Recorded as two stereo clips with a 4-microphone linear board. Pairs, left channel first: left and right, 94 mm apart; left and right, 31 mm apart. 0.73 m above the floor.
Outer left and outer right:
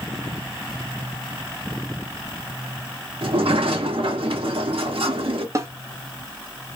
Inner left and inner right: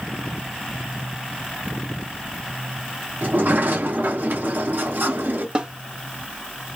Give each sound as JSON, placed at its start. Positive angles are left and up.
{"t": 3.2, "sound": "a sliding door", "side_deg": -75, "distance_m": 0.9}
{"t": 5.5, "sound": "a snare drum", "side_deg": -35, "distance_m": 0.7}